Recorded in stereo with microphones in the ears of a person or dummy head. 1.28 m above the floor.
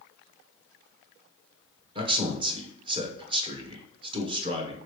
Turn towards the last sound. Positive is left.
turn(degrees=-25)  # may be behind; listen again after turning